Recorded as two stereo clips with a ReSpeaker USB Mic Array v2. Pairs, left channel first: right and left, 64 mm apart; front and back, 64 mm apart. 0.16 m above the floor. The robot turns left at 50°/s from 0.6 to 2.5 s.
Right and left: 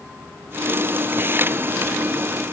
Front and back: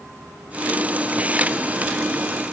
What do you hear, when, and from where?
Only background noise.